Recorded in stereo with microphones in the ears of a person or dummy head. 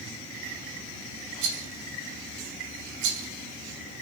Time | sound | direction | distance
1.4 | a rattle | 75° right (ahead or behind) | 2 m